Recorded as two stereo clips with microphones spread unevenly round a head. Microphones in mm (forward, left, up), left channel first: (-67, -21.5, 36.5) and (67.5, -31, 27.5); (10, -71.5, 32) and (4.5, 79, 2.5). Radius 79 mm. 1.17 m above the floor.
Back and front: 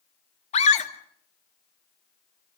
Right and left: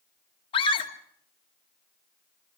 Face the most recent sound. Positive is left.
turn(degrees=-145)